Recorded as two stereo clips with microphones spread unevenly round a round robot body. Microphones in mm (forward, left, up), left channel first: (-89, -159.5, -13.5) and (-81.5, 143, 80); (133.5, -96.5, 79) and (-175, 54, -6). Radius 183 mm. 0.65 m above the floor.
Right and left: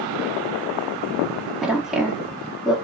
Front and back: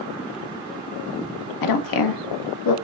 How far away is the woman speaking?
About 0.7 m.